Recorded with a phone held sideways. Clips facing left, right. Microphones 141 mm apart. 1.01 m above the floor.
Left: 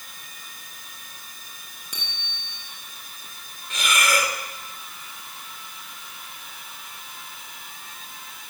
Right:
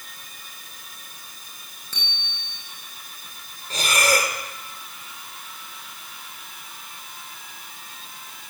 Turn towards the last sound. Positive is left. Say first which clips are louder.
# right 2 dB
turn(degrees=-40)  # may be behind; listen again after turning